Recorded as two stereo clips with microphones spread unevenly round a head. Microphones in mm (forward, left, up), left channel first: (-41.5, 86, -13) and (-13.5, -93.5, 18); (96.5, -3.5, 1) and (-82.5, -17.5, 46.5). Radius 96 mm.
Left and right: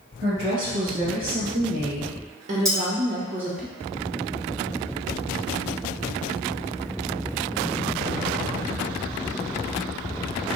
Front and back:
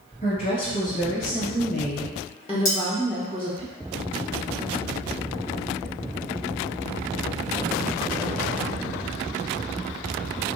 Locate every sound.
0.2 s a woman speaking: 40° right, 1.8 m; by 3.6 s 160° right, 0.5 m
2.6 s cutlery clinking: 10° right, 1.7 m